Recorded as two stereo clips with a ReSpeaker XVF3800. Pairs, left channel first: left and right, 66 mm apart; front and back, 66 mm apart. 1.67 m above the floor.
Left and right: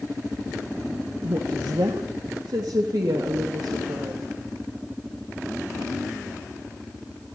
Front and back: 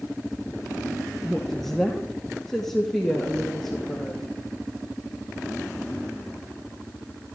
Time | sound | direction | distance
1.2 | a woman speaking | 85° right | 1.7 m